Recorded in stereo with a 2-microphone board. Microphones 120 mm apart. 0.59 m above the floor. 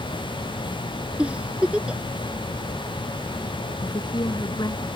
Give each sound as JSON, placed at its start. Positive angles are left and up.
{"t": 1.2, "sound": "a giggle", "side_deg": -10}
{"t": 3.8, "sound": "a woman speaking", "side_deg": 35}